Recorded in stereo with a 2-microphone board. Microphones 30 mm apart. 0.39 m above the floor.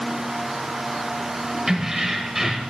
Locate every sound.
1.7 s keys jangling: 15° right (ahead or behind), 1.2 m